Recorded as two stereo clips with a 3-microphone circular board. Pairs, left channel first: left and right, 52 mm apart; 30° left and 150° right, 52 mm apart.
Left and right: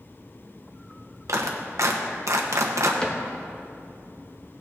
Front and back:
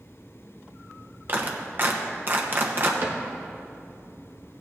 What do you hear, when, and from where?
1.3 s a clap: 105° right, 1.0 m
3.0 s a cupboard door: 165° left, 1.2 m